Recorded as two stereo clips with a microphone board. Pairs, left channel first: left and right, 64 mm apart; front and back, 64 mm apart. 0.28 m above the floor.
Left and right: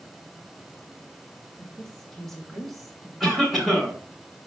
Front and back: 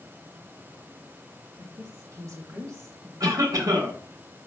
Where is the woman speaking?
170° left, 3.5 m; by 3.1 s 175° right, 2.5 m.